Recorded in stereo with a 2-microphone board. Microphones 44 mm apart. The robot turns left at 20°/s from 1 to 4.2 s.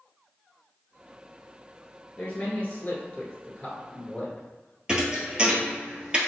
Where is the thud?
20° right (ahead or behind), 0.9 m.